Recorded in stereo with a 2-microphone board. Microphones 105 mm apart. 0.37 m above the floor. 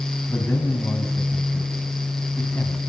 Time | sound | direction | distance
0.3 | a man speaking | 20° left (ahead or behind) | 3.5 m